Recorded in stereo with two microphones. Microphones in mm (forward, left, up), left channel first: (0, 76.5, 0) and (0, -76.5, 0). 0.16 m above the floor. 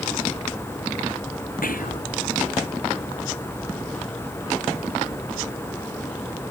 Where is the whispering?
75° left (ahead or behind).